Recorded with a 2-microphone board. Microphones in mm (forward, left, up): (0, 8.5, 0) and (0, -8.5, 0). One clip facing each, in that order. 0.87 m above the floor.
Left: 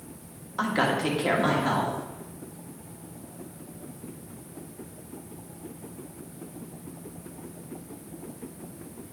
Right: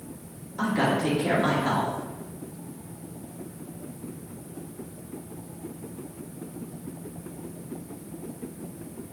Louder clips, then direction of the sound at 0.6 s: Even; 50° left (ahead or behind).